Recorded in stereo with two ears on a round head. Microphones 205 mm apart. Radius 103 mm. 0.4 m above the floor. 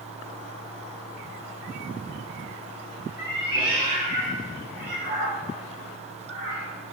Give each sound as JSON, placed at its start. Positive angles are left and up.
{"t": 3.2, "sound": "a cat meowing", "side_deg": -15, "distance_m": 2.0}